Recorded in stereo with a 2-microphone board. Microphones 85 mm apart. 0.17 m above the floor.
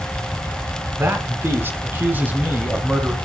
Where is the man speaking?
25° right (ahead or behind), 2 m; by 3.1 s 10° right (ahead or behind), 1.6 m.